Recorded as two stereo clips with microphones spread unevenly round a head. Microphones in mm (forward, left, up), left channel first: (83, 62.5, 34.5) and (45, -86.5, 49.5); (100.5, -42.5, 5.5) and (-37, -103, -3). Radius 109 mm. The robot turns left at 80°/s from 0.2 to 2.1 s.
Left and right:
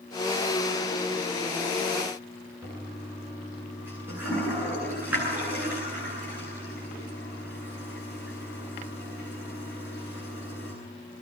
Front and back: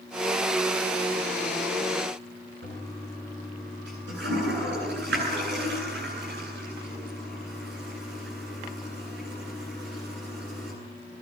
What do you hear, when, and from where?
2.6 s a toilet flushing: 175° left, 10 m